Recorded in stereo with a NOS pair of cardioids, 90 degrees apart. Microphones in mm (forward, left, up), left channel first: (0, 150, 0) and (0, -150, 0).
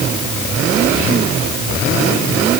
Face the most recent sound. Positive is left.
No sound to turn to.